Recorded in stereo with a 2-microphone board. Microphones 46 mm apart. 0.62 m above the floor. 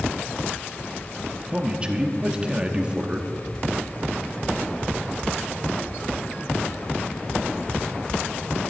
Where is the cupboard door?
5° right (ahead or behind), 4.5 m.